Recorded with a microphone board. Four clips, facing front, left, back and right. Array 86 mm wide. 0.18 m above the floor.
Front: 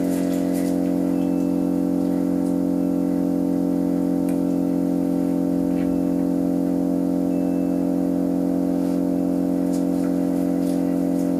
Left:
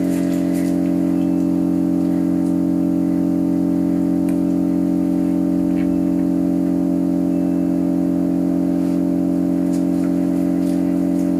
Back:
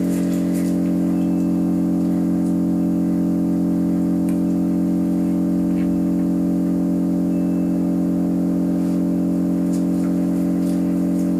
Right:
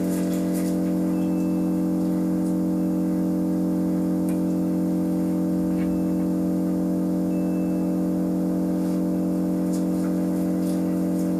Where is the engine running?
95° left, 0.9 m.